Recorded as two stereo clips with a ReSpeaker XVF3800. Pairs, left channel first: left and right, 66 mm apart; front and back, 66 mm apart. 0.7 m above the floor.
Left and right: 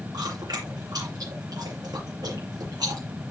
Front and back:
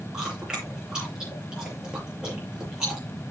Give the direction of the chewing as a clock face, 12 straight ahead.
3 o'clock.